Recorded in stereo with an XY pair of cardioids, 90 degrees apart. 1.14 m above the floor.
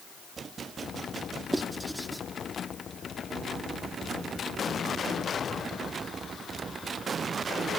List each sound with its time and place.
1.5 s writing: 10° right, 1.3 m